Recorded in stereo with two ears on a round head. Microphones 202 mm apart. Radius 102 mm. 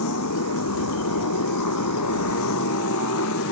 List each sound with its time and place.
0.0 s a motorcycle: 80° left; by 3.5 s 65° left (ahead or behind)